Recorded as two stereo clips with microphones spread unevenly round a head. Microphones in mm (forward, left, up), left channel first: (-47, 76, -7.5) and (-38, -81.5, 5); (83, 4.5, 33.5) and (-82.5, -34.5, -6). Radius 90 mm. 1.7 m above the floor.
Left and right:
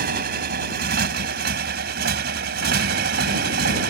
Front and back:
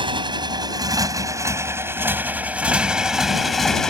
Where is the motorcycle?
100° right; by 3.9 s 65° right.